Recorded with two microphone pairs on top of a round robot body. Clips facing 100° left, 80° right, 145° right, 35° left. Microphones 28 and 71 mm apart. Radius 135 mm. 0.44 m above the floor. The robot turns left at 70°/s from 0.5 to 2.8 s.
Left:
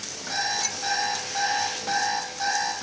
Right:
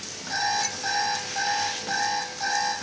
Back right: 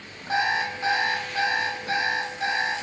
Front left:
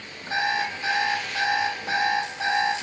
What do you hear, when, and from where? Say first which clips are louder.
0.3 s an alarm clock: right 2 dB, back right 1 dB; 175° right, 2.0 m; by 2.7 s 25° left, 2.0 m